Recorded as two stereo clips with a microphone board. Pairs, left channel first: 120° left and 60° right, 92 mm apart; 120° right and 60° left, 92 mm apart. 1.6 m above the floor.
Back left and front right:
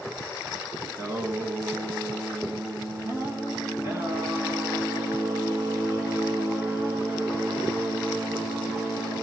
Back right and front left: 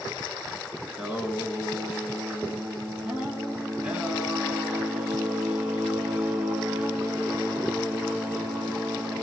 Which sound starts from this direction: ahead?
Singing, at 0.9 s.